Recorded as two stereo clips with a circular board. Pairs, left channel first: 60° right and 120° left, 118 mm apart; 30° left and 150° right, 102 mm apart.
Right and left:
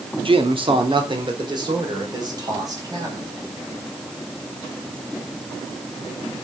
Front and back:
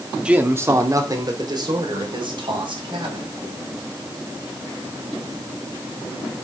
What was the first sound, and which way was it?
A man speaking, 135° left.